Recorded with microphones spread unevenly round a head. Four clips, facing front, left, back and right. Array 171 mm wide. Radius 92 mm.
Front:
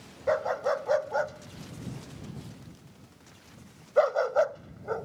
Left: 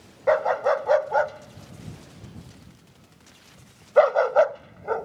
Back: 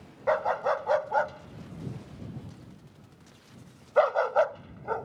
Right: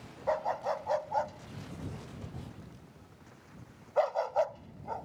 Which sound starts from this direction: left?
A dog barking, at 0.3 s.